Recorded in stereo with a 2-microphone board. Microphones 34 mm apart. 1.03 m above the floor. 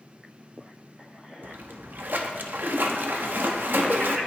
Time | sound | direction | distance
1.4 | a splash | 90° right | 1.1 m